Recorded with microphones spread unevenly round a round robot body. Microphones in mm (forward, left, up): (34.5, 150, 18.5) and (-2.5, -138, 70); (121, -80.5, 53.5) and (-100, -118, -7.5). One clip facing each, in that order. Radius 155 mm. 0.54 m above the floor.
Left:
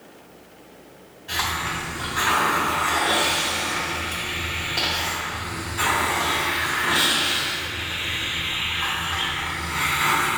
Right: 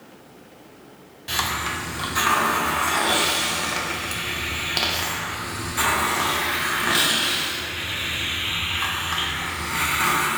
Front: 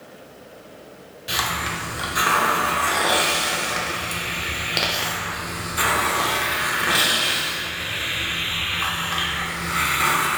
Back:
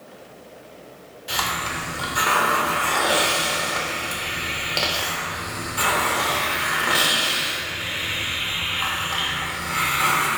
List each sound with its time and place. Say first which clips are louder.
1.3 s a hiss: right 1 dB, front 1 dB; 65° right, 0.7 m